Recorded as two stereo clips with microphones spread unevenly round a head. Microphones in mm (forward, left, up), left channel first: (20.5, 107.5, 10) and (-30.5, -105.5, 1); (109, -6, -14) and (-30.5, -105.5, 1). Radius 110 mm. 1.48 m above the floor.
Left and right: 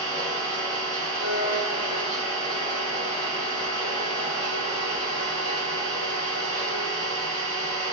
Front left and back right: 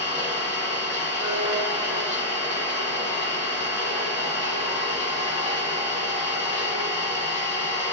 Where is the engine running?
40° right, 1.6 m.